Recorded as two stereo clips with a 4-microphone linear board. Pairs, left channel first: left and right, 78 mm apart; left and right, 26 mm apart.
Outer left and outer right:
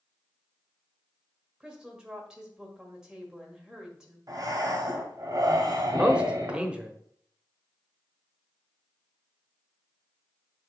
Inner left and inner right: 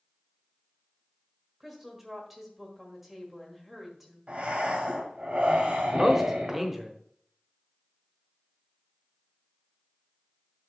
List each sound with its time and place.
1.6 s a woman speaking: 10° right (ahead or behind), 1.5 m
4.3 s breathing: 50° right (ahead or behind), 1.8 m
5.9 s a man speaking: 10° right (ahead or behind), 1.0 m